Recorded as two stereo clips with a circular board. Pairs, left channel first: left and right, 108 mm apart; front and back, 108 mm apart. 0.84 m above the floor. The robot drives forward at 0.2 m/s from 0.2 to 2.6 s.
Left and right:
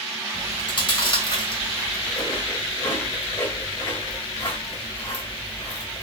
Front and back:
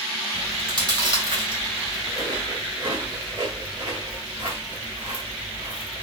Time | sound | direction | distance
0.3 | chewing | 130° left | 2.0 m